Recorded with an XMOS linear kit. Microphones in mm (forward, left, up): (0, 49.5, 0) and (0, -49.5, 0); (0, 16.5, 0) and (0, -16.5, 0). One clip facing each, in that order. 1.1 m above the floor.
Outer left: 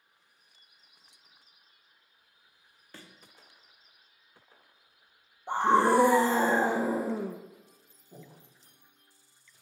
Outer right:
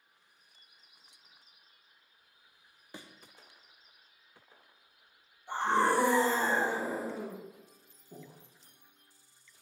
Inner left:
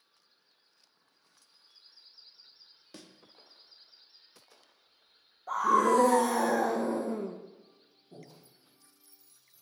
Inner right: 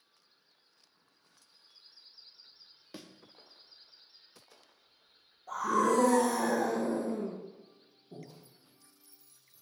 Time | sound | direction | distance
2.9 | a thud | 15° right (ahead or behind) | 0.7 m
5.5 | a scream | 60° left (ahead or behind) | 0.6 m
8.1 | breathing | 15° right (ahead or behind) | 2.5 m